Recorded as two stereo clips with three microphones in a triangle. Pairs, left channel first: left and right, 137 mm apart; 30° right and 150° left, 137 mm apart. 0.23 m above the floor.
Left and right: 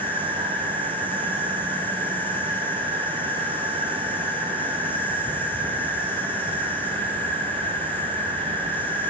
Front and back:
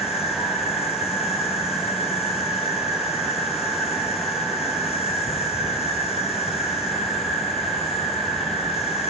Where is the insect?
10° left, 1.2 m.